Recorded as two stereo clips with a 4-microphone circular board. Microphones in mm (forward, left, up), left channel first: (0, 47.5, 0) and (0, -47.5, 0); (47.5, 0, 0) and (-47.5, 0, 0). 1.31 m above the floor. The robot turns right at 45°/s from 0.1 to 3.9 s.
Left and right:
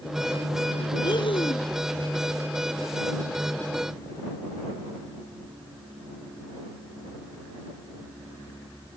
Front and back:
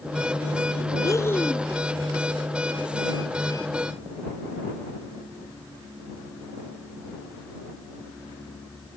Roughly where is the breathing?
Ahead left.